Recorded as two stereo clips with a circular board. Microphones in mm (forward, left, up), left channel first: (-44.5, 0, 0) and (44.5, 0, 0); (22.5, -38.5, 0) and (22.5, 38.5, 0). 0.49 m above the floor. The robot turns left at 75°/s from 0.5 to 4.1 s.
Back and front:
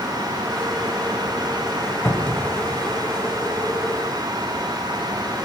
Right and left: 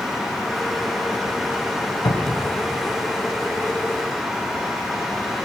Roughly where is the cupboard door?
Behind right.